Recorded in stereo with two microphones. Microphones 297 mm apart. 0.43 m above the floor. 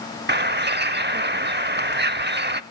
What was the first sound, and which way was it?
A bird, 35° right (ahead or behind).